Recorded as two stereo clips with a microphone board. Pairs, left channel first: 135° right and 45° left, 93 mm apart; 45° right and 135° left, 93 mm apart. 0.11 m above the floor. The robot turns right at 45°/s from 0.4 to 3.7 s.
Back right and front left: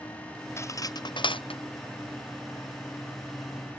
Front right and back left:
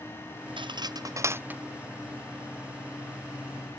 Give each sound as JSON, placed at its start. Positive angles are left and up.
{"t": 0.6, "sound": "cutlery clinking", "azimuth_deg": 165}